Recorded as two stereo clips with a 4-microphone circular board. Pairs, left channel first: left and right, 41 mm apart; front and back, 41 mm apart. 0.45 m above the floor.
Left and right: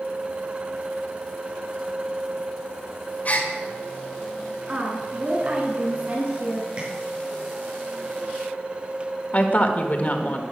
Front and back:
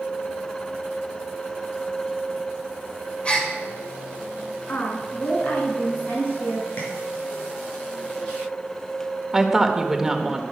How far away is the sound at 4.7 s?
About 4.5 m.